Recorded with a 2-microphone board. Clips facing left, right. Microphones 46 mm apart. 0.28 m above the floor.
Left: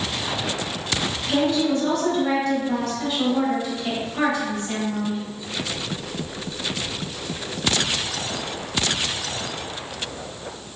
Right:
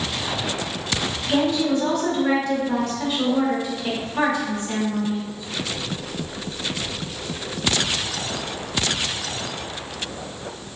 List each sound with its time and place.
1.3 s a woman speaking: 15° right (ahead or behind), 1.6 m